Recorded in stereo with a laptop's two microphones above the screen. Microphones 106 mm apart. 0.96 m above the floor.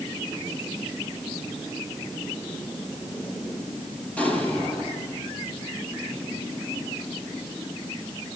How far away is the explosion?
About 7.5 m.